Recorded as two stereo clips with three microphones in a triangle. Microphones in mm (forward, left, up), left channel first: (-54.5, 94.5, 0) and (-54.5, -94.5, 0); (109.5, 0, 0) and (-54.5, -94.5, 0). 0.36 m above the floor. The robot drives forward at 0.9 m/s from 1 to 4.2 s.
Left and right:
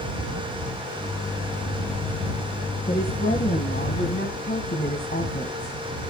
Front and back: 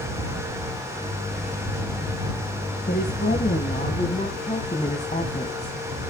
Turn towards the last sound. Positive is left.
turn(degrees=80)